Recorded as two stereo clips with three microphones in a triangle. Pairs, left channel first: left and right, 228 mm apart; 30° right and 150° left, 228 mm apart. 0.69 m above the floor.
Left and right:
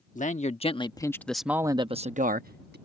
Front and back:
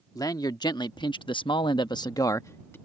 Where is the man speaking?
40° left; by 2.8 s 105° right.